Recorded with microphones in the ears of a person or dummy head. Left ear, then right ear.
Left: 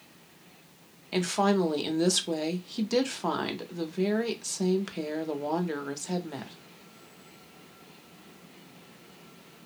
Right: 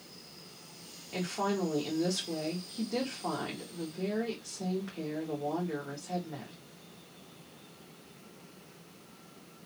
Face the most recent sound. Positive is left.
turn(degrees=85)